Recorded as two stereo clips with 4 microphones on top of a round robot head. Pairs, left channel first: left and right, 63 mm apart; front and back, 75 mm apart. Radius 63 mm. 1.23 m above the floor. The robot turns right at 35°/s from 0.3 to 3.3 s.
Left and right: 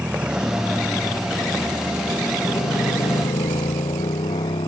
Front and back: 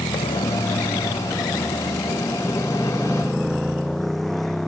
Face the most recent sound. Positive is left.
turn(degrees=90)